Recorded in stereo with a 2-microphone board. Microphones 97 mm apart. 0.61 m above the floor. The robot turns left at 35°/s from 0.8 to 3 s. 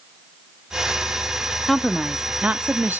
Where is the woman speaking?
Centre (ahead or behind), 0.7 m; by 3.0 s 20° right (ahead or behind), 0.7 m.